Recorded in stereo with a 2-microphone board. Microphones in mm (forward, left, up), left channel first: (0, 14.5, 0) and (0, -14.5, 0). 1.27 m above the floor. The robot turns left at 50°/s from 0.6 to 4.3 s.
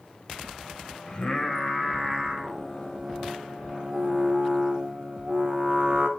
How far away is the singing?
About 1.3 m.